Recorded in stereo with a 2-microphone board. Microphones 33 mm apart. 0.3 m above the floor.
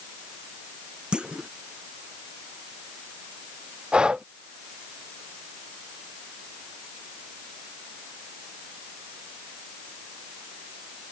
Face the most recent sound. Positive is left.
turn(degrees=-30)  # may be behind; listen again after turning